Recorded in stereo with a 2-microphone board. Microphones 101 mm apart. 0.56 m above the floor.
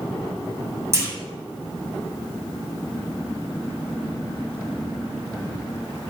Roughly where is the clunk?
Right.